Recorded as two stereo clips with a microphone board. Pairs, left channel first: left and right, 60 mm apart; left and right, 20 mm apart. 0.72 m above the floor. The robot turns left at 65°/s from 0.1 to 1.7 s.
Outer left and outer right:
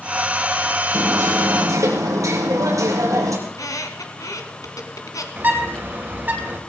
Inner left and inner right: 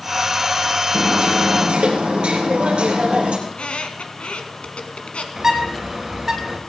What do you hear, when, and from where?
0.9 s hammering: 70° right, 4 m; by 3.4 s 120° right, 4 m
3.5 s a squeak: 70° left (ahead or behind), 1.7 m
5.4 s a bird: 35° right (ahead or behind), 2.5 m